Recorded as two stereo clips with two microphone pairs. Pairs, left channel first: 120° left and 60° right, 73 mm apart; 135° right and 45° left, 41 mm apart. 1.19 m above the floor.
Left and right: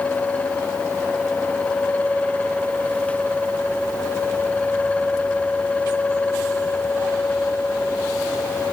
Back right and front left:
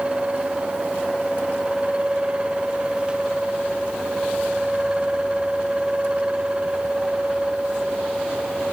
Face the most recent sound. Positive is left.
No sound to turn to.